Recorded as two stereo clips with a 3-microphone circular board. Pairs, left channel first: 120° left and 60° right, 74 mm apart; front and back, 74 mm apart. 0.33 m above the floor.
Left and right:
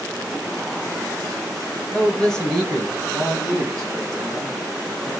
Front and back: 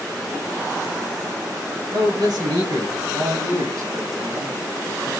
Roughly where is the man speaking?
Behind.